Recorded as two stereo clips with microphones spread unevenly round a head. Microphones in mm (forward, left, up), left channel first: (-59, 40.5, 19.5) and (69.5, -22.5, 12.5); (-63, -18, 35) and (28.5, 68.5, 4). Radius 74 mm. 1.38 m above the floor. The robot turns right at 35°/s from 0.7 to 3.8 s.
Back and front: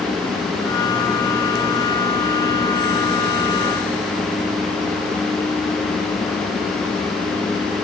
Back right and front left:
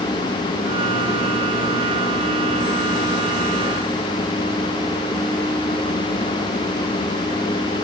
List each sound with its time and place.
Only background noise.